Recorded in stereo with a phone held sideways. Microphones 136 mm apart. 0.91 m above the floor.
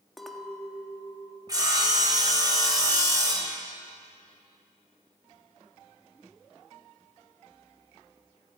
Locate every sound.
0.2 s a clink: centre (ahead or behind), 0.9 m
1.5 s sawing: 30° right (ahead or behind), 2 m